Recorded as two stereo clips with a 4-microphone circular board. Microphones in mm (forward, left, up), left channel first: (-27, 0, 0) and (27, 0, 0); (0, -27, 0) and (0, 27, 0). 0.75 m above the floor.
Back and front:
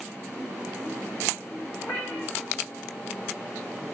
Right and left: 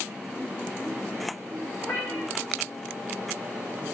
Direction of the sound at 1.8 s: 120° right.